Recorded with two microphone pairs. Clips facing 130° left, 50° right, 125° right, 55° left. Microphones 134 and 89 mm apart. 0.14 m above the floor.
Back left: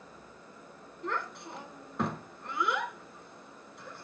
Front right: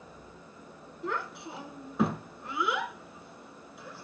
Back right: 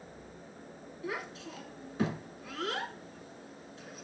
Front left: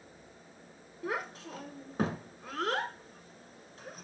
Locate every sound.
1.0 s a child speaking: 35° left, 0.8 m